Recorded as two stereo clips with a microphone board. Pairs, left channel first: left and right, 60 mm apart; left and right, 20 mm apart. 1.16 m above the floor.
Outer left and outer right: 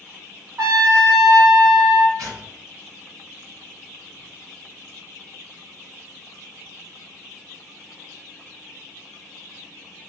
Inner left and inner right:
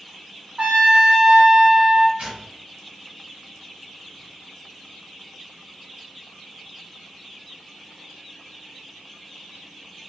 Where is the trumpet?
70° right (ahead or behind), 1.4 m.